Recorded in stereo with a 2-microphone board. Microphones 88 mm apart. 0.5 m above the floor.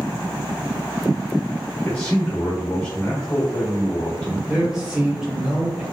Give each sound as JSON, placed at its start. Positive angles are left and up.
{"t": 1.9, "sound": "a man speaking", "side_deg": 15, "distance_m": 0.8}
{"t": 4.5, "sound": "a man speaking", "side_deg": -10, "distance_m": 1.4}